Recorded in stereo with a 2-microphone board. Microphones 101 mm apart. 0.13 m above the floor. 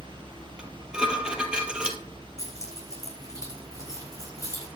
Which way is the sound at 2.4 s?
35° left (ahead or behind).